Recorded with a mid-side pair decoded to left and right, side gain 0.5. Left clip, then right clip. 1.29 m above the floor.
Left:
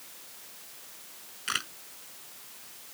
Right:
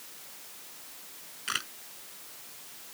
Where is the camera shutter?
15° left.